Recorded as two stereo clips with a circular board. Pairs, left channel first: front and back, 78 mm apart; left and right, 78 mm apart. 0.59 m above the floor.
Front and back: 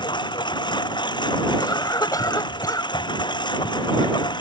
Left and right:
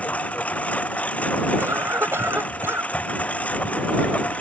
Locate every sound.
0.0 s a lawn mower: 15° left
1.6 s a cough: 35° right